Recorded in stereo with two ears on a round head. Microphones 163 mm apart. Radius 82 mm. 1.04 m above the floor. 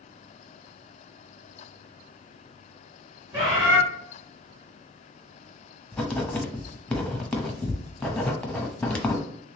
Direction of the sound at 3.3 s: 25° right (ahead or behind).